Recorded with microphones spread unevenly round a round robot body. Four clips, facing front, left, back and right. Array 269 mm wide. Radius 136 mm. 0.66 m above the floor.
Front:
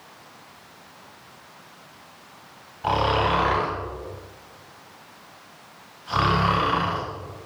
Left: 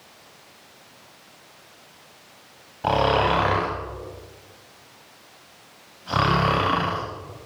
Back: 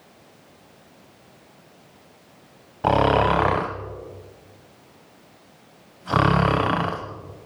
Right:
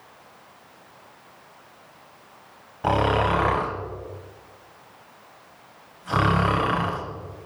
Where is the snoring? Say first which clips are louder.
Left 1 dB, back 4 dB; 175° left, 1.4 m.